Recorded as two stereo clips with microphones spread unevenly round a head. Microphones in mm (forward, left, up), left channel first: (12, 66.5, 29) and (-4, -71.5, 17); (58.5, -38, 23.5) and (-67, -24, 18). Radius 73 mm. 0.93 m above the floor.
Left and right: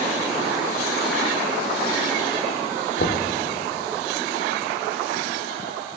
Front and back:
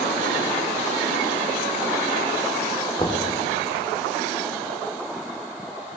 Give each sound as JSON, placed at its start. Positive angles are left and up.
{"t": 3.0, "sound": "knocking", "azimuth_deg": 60, "distance_m": 1.4}